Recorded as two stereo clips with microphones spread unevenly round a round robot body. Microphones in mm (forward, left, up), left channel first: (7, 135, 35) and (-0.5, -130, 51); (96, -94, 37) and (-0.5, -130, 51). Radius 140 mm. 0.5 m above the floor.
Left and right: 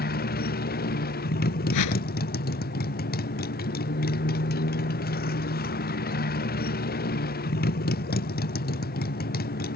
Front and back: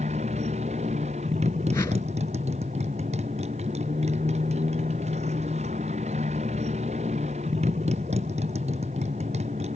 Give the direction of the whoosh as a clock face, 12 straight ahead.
9 o'clock.